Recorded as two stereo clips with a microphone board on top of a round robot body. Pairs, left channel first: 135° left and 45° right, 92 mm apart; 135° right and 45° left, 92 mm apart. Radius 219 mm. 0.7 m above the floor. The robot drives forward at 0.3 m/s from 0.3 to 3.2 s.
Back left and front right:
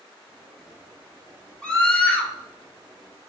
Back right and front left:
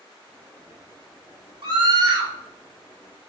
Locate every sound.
1.6 s a scream: 55° left, 1.7 m; by 2.3 s 65° left, 1.6 m